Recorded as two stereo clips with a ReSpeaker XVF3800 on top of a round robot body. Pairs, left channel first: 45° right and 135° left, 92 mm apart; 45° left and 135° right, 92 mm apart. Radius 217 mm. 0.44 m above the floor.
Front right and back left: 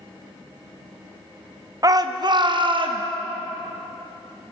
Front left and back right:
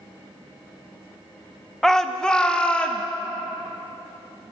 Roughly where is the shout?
Behind left.